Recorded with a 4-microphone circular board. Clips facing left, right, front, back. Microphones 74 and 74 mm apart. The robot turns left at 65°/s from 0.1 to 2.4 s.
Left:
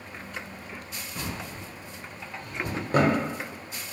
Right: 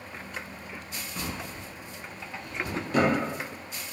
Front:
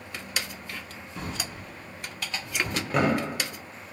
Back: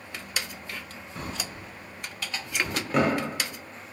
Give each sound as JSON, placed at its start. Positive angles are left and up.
{"t": 1.1, "sound": "a drawer", "azimuth_deg": 170, "distance_m": 0.6}